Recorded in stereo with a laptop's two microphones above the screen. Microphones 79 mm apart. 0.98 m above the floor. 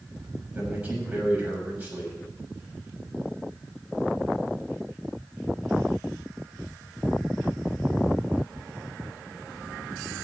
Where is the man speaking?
15° right (ahead or behind), 7 m.